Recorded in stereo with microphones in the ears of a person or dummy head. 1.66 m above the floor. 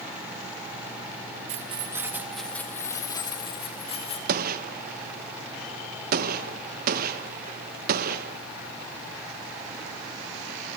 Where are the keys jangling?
45° right (ahead or behind), 1.6 m; by 4.2 s 30° left (ahead or behind), 3.5 m.